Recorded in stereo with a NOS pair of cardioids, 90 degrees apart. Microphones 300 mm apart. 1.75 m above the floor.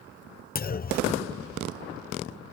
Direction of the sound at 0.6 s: 30° left.